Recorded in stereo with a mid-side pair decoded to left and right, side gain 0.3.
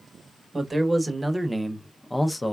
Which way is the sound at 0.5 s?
30° right.